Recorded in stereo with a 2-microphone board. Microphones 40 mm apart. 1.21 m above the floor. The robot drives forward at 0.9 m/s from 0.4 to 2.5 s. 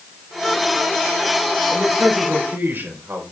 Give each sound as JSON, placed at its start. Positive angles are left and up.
{"t": 1.7, "sound": "a man speaking", "side_deg": -75, "distance_m": 4.5}